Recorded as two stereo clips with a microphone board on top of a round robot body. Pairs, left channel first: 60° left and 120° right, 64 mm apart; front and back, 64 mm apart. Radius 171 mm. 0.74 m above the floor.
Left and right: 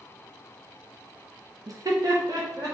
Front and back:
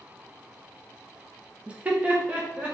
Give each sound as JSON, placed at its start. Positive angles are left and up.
{"t": 1.7, "sound": "laughter", "azimuth_deg": -110, "distance_m": 0.8}